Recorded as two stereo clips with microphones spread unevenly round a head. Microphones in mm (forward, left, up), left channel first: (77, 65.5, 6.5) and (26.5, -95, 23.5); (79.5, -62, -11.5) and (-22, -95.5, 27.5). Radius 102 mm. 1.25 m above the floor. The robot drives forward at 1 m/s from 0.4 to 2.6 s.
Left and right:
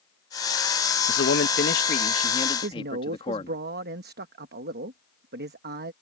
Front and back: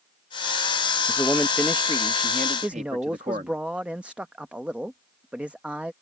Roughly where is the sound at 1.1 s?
Left.